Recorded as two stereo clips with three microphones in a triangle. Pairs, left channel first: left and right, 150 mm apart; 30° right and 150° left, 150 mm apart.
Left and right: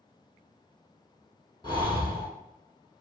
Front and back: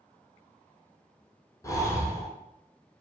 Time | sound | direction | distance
1.6 | breathing | 35° left | 0.6 m